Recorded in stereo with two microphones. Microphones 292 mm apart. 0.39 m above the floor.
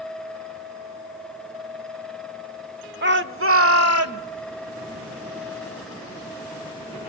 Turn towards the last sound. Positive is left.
turn(degrees=-60)  # may be behind; listen again after turning